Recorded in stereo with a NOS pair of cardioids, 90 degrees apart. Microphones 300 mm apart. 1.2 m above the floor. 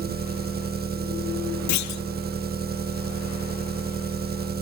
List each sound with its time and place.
0.0 s an engine running: 35° right, 1.2 m
1.7 s a clunk: 70° left, 0.9 m